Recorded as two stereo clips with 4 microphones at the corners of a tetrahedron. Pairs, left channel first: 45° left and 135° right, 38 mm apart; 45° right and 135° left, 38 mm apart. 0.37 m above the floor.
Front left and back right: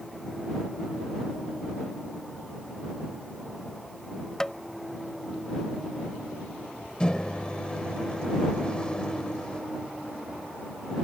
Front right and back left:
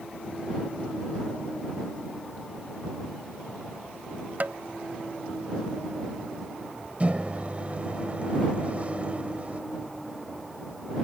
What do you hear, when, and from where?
4.4 s tapping: 115° left
7.0 s a microwave: 100° left